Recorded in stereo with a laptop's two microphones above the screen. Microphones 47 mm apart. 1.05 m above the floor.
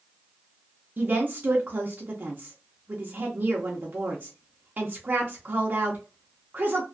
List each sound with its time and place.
1.0 s a woman speaking: 40° right (ahead or behind), 0.7 m